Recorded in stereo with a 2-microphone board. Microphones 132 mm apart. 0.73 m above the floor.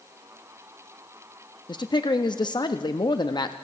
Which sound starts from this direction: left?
A man speaking, at 1.7 s.